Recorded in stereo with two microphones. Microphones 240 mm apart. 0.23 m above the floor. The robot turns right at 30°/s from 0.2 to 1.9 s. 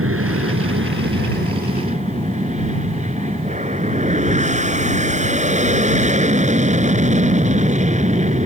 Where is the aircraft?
85° right; by 8.5 s 35° right.